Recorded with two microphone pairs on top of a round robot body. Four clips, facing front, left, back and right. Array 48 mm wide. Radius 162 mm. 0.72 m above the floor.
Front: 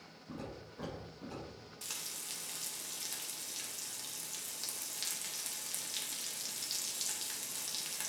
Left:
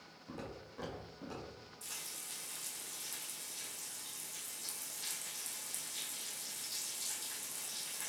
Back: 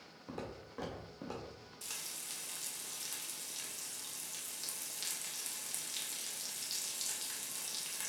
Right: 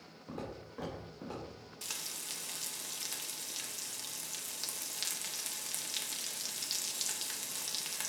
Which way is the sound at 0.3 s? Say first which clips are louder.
Right 4 dB, back 1 dB; 160° right.